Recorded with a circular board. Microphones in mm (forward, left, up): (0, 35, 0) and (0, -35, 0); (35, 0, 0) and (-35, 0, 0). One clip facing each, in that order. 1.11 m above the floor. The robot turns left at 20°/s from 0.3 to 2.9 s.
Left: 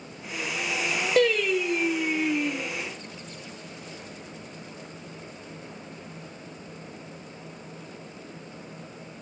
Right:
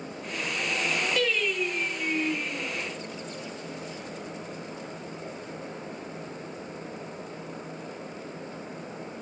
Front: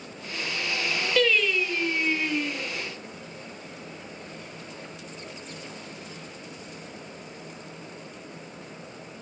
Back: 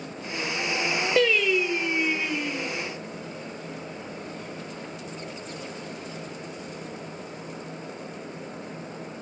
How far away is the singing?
About 1.1 m.